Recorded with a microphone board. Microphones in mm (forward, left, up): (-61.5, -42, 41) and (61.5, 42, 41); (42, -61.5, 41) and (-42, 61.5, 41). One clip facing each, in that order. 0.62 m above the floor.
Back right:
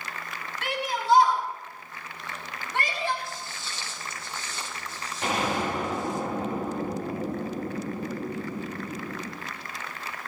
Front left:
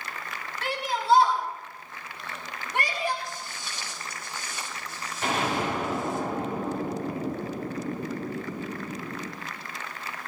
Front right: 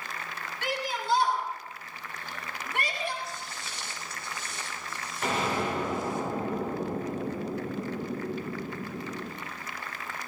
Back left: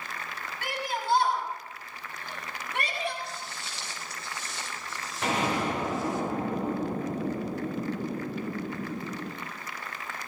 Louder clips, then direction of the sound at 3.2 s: Even, even; 105° left.